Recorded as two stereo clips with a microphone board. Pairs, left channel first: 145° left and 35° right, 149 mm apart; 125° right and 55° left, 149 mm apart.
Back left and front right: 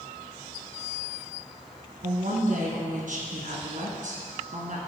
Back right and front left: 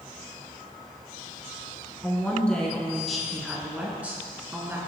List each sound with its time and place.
2.0 s a woman speaking: 45° right, 3 m; by 4.8 s 15° right, 3 m